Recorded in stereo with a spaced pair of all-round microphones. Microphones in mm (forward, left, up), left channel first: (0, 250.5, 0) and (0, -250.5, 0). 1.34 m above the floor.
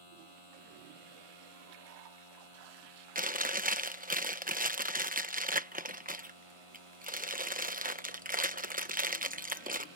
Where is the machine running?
85° right.